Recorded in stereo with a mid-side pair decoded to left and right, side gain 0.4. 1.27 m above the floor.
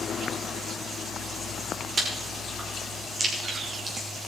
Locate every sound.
2.0 s chewing: 40° right, 5 m